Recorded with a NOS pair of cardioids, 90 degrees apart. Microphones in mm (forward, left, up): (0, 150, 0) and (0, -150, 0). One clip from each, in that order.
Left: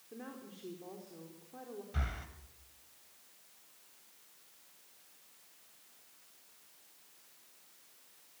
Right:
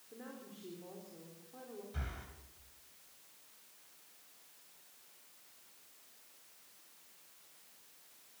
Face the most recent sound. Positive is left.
turn(degrees=45)